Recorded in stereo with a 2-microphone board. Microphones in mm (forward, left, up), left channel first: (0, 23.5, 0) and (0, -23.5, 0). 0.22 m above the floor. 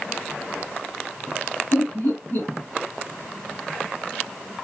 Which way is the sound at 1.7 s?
35° left (ahead or behind).